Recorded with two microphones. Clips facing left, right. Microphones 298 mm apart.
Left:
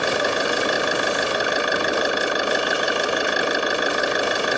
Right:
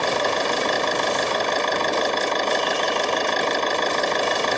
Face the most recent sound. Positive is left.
turn(degrees=10)  # may be behind; listen again after turning